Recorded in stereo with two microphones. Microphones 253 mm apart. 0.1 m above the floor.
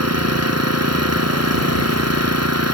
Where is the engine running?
80° right.